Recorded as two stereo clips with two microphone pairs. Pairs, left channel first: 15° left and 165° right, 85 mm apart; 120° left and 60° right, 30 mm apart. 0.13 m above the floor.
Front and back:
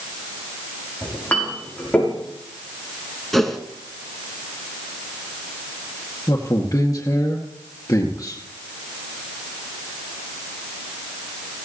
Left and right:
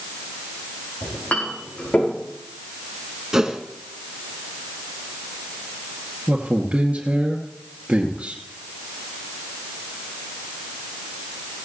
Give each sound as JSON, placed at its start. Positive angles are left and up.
{"t": 1.0, "sound": "a clink", "azimuth_deg": 90, "distance_m": 5.5}
{"t": 3.3, "sound": "a whoosh", "azimuth_deg": -65, "distance_m": 1.6}
{"t": 6.3, "sound": "a man speaking", "azimuth_deg": -25, "distance_m": 2.0}